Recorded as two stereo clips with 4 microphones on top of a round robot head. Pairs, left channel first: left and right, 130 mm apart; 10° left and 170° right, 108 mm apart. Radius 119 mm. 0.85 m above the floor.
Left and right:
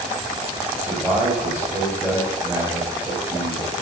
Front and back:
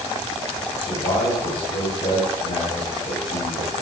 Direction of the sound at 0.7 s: 10° right.